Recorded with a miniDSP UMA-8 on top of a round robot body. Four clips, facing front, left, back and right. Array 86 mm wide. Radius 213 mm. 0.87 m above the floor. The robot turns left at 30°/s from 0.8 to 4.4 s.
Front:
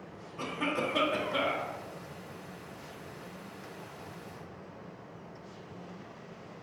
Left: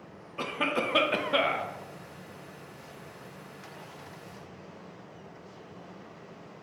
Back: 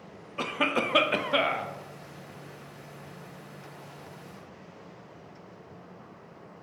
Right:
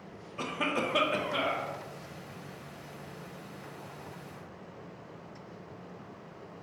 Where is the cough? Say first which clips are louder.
Left 2 dB, back 4 dB; 165° left, 0.6 m; by 1.7 s 140° left, 0.6 m.